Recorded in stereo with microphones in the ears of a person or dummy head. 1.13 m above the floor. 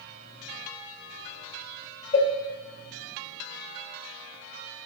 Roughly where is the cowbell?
Centre.